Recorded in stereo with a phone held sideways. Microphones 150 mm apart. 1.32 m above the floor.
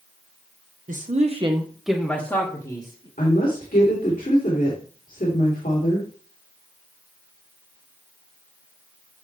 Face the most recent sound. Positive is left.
turn(degrees=70)  # may be behind; listen again after turning